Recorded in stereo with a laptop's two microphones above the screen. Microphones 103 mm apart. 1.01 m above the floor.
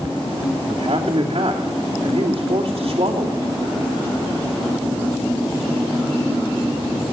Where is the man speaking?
65° right (ahead or behind), 3 m.